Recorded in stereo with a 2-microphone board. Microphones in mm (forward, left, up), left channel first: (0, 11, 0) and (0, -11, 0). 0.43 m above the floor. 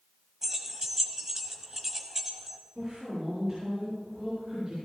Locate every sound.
0.4 s keys jangling: 20° right (ahead or behind), 1.5 m
2.8 s a woman speaking: 20° right (ahead or behind), 7.5 m